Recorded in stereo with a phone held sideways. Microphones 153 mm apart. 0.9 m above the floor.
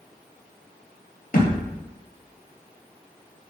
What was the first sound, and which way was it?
A thud, 70° left (ahead or behind).